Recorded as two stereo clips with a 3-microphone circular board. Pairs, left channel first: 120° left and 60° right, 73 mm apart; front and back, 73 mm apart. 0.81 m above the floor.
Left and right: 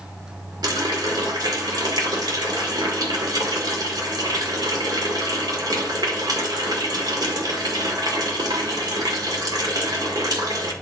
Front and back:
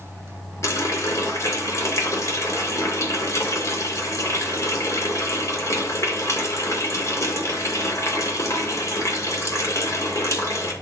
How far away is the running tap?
About 1.8 m.